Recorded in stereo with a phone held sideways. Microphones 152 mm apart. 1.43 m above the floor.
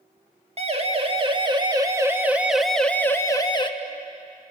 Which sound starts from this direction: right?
A siren, at 0.6 s.